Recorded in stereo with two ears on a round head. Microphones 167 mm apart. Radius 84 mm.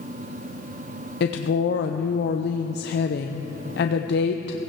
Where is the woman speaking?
60° left (ahead or behind), 0.6 m.